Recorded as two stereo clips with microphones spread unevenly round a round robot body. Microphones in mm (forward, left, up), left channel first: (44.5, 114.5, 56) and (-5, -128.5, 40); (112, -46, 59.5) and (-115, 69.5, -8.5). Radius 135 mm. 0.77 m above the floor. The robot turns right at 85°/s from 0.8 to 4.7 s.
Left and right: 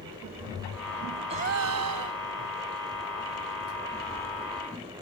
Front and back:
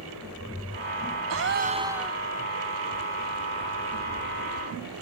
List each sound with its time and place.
1.3 s a gasp: 170° right; by 2.2 s 95° right